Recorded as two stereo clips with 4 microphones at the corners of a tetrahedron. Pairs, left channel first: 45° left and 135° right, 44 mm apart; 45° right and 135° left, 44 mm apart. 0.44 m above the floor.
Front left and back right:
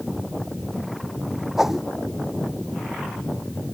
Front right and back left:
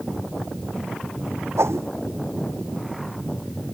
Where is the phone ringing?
No phone ringing in this recording.